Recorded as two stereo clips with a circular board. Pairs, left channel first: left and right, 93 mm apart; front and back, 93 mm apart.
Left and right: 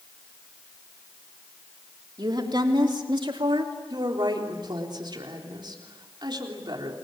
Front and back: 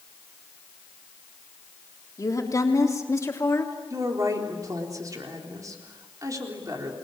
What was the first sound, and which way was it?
A woman speaking, 50° right.